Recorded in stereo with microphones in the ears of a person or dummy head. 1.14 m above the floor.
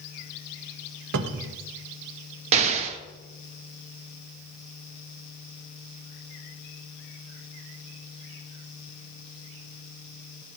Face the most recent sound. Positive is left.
turn(degrees=-40)  # may be behind; listen again after turning